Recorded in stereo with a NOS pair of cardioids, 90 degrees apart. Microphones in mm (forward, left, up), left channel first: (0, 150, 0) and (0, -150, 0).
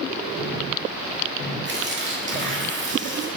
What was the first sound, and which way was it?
Tearing paper, 40° right.